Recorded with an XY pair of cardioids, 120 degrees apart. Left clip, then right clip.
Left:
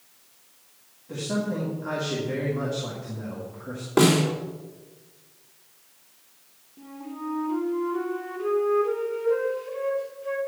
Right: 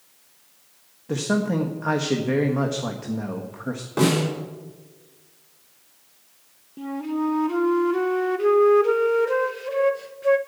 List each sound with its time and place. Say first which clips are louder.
1.1 s a man speaking: right 5 dB; 55° right, 1.3 m
4.0 s a snare drum: left 2 dB; 35° left, 3.5 m
6.8 s a flute: right 10 dB; 60° right, 0.8 m